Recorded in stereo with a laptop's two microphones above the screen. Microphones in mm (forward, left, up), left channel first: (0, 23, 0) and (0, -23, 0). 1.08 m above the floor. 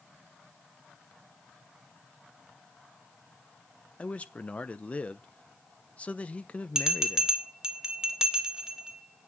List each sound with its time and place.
4.0 s a man speaking: 30° left (ahead or behind), 0.8 m
6.8 s a bell: 10° right (ahead or behind), 1.7 m